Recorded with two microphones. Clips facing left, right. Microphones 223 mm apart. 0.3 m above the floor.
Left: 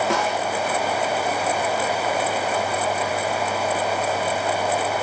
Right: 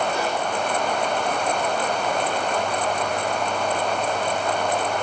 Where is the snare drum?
75° left (ahead or behind), 9 m.